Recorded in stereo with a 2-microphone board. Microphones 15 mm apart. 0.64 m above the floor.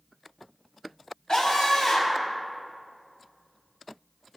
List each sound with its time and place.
1.3 s a scream: 40° left (ahead or behind), 4 m